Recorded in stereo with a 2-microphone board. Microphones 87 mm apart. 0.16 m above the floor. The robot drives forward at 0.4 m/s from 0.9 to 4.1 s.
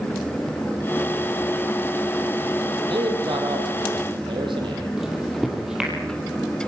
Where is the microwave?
5° right (ahead or behind), 4 m.